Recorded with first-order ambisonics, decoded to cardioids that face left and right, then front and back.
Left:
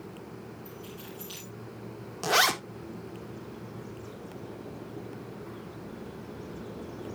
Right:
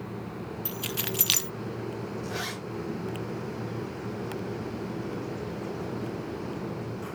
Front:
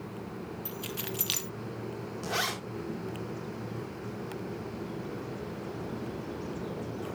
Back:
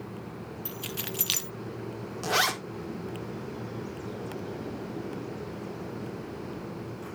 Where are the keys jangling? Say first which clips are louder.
Right 11 dB, back 3 dB; 100° right, 0.6 m.